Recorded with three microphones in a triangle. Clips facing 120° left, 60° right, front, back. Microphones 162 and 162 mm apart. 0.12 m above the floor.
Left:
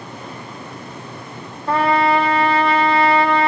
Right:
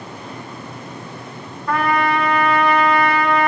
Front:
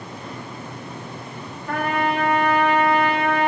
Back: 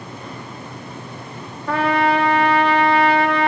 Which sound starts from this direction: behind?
A trumpet, at 1.7 s.